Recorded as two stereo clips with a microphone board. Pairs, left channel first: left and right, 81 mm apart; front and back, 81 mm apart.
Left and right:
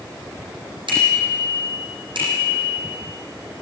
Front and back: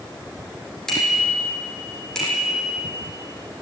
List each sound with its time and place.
0.9 s a bicycle bell: 85° right, 7.5 m